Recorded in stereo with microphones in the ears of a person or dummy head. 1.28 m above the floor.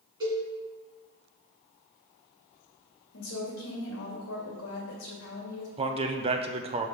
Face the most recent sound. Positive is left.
turn(degrees=-30)  # may be behind; listen again after turning